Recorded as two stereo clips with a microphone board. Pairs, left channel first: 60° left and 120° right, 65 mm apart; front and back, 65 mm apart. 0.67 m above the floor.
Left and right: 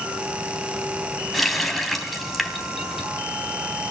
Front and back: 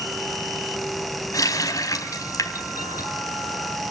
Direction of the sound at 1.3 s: 30° right.